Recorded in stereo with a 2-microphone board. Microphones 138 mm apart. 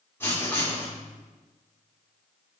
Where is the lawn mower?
I don't hear a lawn mower.